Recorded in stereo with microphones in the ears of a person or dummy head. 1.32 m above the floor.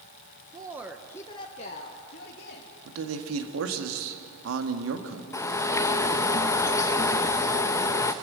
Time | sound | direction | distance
0.5 | a woman speaking | 25° right (ahead or behind) | 1.2 m
2.9 | a man speaking | 85° right | 2.0 m
5.3 | a bird | 20° left (ahead or behind) | 0.6 m